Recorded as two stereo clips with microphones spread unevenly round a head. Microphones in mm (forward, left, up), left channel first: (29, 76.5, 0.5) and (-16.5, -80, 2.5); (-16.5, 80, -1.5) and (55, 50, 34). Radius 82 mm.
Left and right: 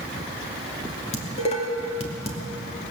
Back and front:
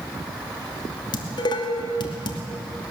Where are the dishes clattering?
130° left, 2.5 m.